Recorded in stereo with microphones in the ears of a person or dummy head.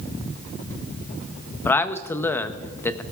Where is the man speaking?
15° left (ahead or behind), 0.7 m.